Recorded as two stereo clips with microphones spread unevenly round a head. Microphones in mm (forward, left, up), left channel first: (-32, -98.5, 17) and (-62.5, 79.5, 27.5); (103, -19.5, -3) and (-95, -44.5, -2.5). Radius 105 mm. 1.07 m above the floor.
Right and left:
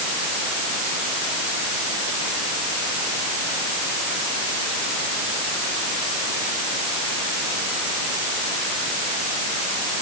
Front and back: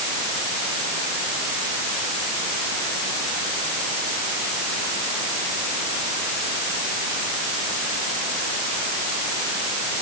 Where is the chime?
I don't hear a chime.